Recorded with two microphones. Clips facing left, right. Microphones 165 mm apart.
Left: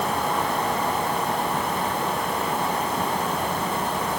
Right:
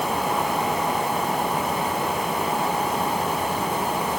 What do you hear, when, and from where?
Only background noise.